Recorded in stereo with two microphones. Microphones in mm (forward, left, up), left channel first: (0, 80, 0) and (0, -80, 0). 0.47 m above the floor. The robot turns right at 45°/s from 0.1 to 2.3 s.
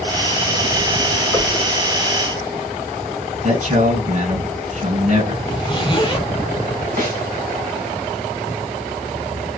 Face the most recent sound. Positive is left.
turn(degrees=-70)  # may be behind; listen again after turning